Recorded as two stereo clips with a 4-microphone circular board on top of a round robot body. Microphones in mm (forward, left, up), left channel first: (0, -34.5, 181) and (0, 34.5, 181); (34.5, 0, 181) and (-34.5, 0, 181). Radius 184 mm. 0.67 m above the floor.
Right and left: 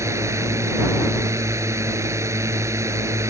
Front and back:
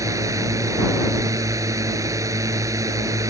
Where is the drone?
140° left.